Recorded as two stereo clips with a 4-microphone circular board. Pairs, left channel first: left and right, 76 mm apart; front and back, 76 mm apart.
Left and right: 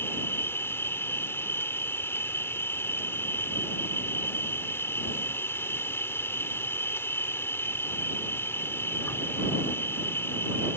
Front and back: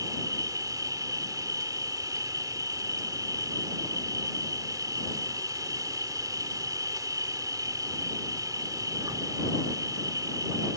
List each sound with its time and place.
0.0 s an insect: 145° left